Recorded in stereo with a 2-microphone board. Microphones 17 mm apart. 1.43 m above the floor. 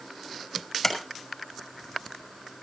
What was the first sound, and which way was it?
A sliding door, 10° left (ahead or behind).